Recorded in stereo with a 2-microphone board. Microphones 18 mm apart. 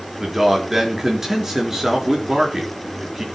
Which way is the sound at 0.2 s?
25° right (ahead or behind).